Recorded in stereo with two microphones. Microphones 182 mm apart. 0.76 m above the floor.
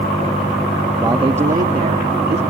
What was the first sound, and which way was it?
A man speaking, 15° right (ahead or behind).